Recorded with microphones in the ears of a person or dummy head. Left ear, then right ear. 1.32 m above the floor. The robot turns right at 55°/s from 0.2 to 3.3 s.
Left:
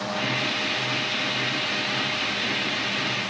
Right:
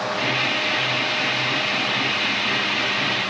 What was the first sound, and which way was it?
Only background noise.